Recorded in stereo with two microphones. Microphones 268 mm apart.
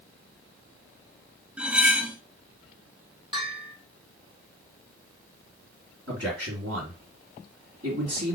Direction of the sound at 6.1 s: 55° right (ahead or behind).